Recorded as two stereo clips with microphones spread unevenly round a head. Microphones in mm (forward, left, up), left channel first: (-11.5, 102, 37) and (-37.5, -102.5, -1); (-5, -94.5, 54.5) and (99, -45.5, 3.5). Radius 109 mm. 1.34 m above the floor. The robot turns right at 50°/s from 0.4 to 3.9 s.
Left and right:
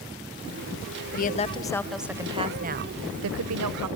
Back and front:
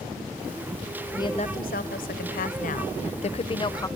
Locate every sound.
1.1 s a woman speaking: 130° left, 0.6 m; by 3.9 s 90° right, 0.6 m